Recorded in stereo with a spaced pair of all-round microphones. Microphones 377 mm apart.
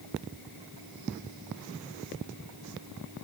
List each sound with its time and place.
Only background noise.